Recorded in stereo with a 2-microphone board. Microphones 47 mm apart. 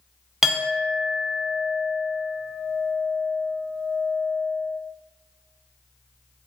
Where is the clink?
10° right (ahead or behind), 0.6 m.